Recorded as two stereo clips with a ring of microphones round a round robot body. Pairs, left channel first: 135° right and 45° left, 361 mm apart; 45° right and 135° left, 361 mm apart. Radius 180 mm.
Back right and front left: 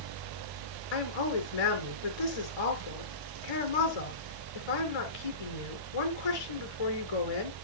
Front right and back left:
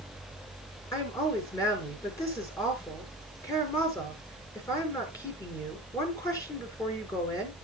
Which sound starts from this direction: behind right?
A woman speaking, at 0.9 s.